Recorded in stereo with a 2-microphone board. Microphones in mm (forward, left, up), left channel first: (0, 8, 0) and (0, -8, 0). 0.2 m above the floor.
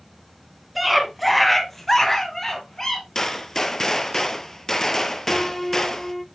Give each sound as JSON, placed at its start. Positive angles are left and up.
{"t": 0.8, "sound": "a scream", "side_deg": -5, "distance_m": 1.9}
{"t": 3.1, "sound": "a gunshot", "side_deg": 30, "distance_m": 0.7}
{"t": 5.3, "sound": "a piano", "side_deg": 15, "distance_m": 0.5}